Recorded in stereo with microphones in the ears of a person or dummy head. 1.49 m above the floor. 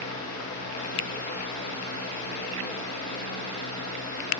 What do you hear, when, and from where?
0.0 s a fan: 50° left (ahead or behind), 1.8 m